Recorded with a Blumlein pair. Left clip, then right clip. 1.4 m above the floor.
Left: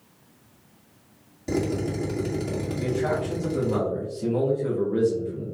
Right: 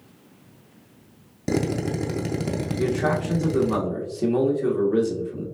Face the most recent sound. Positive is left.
turn(degrees=-50)